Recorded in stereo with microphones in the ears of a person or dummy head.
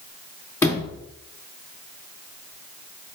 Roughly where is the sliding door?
Centre.